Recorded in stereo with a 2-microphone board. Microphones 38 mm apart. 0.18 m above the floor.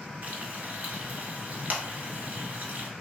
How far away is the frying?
About 1.0 m.